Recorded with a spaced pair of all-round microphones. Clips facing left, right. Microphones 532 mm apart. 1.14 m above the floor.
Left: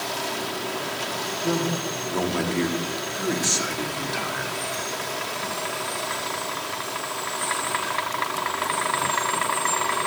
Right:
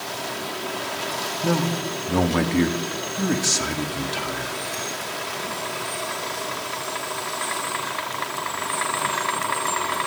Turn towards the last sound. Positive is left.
turn(degrees=-50)  # may be behind; listen again after turning